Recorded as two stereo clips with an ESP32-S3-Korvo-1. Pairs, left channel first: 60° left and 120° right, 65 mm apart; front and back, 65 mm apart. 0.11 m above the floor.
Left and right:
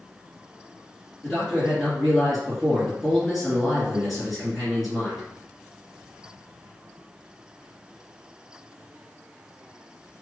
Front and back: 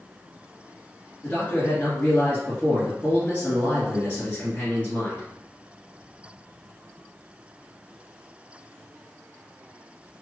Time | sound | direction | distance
1.2 | a man speaking | 30° right | 1.8 m